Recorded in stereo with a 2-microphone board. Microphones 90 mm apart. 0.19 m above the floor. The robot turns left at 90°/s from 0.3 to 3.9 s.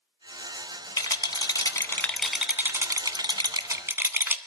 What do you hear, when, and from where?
1.0 s a rattle: 120° left, 0.6 m; by 4.4 s 145° right, 0.6 m